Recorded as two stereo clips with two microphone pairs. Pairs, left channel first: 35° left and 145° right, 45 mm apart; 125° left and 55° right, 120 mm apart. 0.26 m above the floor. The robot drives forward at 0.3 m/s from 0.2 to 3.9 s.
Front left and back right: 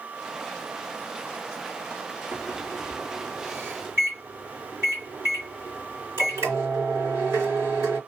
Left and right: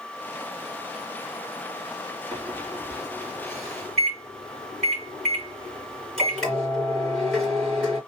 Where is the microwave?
145° right, 3.5 m; by 8.0 s 150° right, 3.5 m.